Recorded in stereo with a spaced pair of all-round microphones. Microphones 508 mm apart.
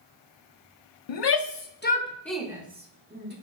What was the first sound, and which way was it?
A shout, 65° left (ahead or behind).